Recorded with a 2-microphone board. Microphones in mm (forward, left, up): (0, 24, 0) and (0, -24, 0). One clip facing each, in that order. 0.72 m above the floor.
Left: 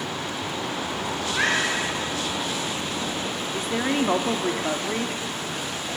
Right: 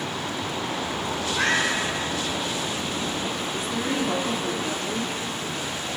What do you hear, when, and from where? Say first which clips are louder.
1.2 s a cat meowing: even; 25° left (ahead or behind), 9.5 m
3.5 s a woman speaking: left 4 dB; 45° left (ahead or behind), 1.7 m